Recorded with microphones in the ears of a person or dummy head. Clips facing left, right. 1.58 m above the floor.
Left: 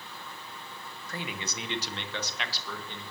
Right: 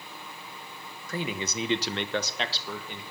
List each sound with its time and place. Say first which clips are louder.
1.1 s a man speaking: right 6 dB; 65° right (ahead or behind), 1.1 m; by 3.0 s 10° right (ahead or behind), 1.3 m